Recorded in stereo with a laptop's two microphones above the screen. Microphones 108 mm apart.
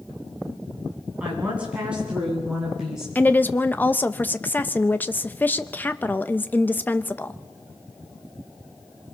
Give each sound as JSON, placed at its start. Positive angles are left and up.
{"t": 1.2, "sound": "a woman speaking", "side_deg": -15, "distance_m": 8.0}
{"t": 3.1, "sound": "a woman speaking", "side_deg": 15, "distance_m": 0.7}